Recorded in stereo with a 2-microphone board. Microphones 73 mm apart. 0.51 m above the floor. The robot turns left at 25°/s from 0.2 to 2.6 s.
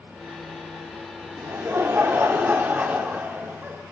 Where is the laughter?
115° right, 0.8 m; by 3.8 s 145° right, 0.8 m.